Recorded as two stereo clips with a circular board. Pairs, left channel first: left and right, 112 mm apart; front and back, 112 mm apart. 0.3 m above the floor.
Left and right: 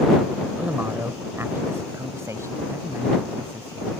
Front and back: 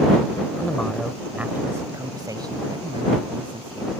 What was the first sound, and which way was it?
A man speaking, 40° right.